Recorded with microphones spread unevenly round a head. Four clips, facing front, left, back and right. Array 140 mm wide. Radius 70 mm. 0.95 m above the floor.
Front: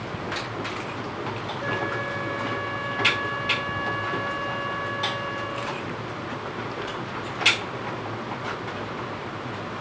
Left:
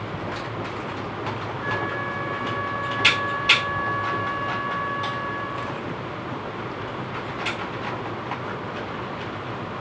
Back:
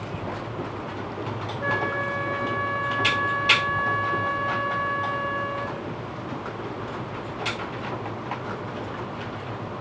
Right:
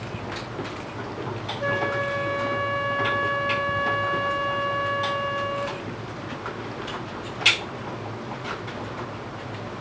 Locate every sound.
1.6 s a flute: 100° right, 1.1 m